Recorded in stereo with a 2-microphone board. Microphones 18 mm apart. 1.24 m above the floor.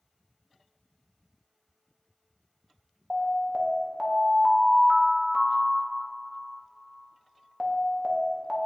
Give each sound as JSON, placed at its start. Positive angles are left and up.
{"t": 3.1, "sound": "an alarm", "side_deg": -15, "distance_m": 0.8}